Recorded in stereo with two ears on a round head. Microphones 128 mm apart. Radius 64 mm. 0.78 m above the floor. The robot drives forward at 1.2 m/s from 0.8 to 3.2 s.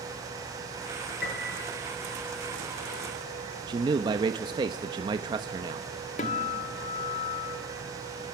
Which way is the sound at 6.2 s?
50° left (ahead or behind).